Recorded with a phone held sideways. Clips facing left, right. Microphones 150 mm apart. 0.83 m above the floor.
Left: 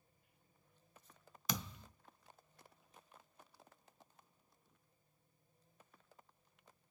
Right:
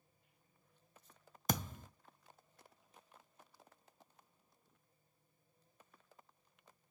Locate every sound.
1.5 s a thud: 50° right (ahead or behind), 0.5 m